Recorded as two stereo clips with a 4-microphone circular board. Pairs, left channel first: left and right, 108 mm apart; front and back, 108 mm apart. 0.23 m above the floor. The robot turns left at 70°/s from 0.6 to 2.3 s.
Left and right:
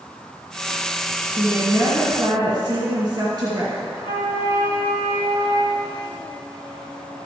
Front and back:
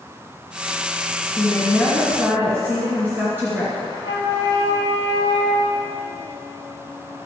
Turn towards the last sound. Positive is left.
turn(degrees=120)